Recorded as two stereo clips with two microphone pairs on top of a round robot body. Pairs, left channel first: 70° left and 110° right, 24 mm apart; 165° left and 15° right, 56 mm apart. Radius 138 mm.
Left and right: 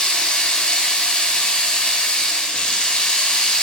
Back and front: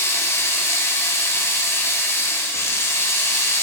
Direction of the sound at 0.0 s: 120° left.